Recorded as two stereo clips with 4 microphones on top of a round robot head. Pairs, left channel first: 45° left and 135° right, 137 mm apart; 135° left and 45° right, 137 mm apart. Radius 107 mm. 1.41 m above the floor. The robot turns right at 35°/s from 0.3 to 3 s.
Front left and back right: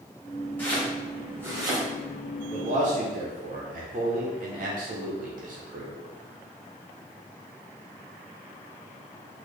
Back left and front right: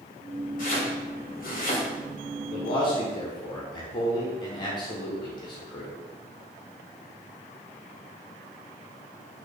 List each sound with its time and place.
0.6 s chopping: 120° left, 1.2 m; by 1.9 s 165° left, 1.2 m
2.5 s a man speaking: straight behind, 0.7 m; by 5.9 s 165° right, 0.7 m